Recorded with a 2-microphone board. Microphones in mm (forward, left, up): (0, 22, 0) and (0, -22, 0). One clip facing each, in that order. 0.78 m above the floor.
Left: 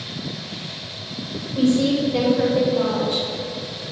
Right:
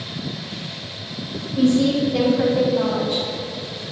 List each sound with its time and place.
1.6 s a woman speaking: 50° left (ahead or behind), 3 m; by 3.2 s 10° left (ahead or behind), 4 m